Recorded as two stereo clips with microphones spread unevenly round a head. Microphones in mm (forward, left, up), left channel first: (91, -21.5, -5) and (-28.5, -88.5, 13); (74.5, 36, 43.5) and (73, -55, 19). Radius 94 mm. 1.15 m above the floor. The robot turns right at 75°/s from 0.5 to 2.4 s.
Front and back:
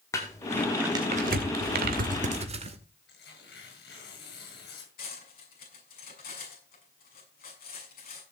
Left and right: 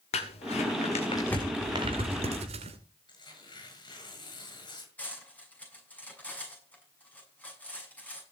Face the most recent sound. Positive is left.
turn(degrees=15)